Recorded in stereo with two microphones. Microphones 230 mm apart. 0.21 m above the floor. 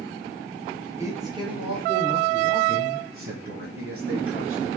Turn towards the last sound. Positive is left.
turn(degrees=-55)  # may be behind; listen again after turning